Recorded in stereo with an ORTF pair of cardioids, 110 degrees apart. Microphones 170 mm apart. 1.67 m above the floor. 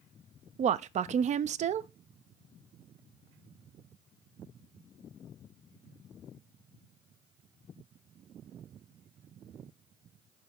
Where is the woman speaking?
45° right, 0.5 m.